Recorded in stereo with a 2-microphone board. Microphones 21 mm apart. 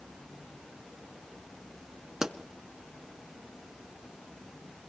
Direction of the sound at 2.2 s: 30° right (ahead or behind).